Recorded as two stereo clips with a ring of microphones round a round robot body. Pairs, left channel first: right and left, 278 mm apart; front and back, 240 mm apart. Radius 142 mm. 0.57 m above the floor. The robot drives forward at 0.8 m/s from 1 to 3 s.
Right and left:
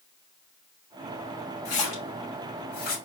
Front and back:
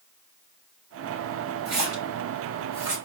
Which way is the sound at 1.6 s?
120° right.